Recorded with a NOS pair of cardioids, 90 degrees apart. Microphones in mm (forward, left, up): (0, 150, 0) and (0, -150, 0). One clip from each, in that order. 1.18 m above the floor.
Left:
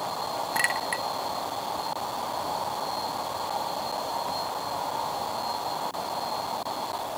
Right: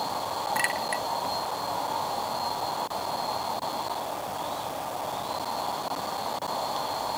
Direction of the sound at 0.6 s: 10° left.